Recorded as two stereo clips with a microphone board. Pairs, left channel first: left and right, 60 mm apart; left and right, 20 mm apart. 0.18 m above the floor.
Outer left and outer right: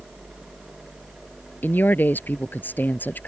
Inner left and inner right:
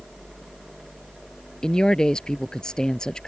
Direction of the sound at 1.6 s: 30° left (ahead or behind).